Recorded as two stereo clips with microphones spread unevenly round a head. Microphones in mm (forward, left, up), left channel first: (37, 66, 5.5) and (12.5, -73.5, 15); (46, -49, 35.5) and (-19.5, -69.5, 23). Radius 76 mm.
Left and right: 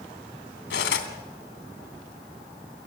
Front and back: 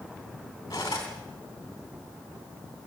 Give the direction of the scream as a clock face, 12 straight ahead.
I don't hear a scream.